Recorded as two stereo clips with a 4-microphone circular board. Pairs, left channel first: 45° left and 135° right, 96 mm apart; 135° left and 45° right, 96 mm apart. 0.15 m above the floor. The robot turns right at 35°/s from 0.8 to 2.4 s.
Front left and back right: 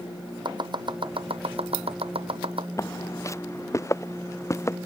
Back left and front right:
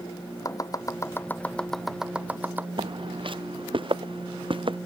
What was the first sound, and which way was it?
Chopping, 170° right.